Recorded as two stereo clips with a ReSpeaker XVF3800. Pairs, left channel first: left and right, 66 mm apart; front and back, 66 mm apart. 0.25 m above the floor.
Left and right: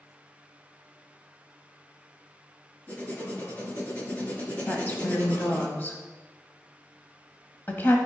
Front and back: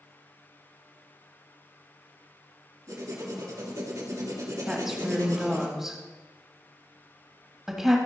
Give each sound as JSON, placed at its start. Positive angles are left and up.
{"t": 2.9, "sound": "writing", "azimuth_deg": 150, "distance_m": 2.0}
{"t": 4.7, "sound": "a woman speaking", "azimuth_deg": 100, "distance_m": 1.5}